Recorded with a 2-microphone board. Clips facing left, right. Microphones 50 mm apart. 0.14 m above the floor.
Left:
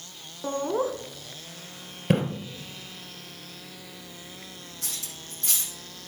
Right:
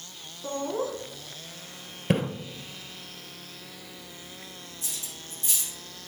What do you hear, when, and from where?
0.4 s laughter: 30° left (ahead or behind), 1.2 m
2.1 s a splash: 5° right (ahead or behind), 1.9 m
4.8 s cutlery clinking: 65° left (ahead or behind), 4 m